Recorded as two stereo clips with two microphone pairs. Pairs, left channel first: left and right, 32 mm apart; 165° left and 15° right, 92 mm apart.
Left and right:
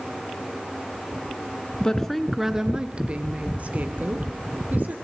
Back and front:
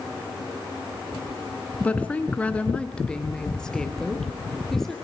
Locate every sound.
1.8 s a woman speaking: 115° left, 1.1 m; by 5.0 s 110° right, 3.5 m